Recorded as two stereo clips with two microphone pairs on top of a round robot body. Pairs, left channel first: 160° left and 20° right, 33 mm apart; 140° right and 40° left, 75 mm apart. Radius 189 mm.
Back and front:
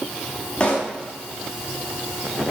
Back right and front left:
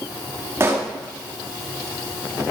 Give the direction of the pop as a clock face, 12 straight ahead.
9 o'clock.